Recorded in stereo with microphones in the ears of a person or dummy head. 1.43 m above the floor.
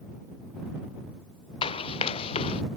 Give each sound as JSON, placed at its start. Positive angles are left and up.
{"t": 1.6, "sound": "running footsteps", "side_deg": 35}